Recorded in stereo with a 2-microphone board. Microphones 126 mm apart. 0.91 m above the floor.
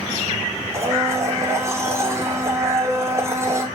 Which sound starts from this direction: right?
A blender, at 0.7 s.